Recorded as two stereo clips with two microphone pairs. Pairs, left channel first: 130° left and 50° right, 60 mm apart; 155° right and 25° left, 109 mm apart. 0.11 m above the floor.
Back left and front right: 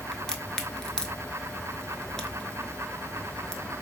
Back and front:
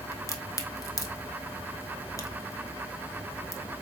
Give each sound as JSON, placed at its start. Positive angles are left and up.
{"t": 0.1, "sound": "a crack", "azimuth_deg": -155, "distance_m": 0.6}